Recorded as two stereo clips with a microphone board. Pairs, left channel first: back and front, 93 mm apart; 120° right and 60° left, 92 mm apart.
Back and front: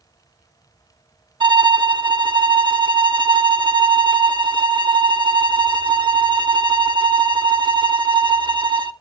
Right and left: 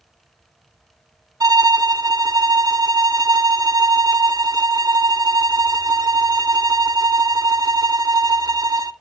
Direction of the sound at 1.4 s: 20° left.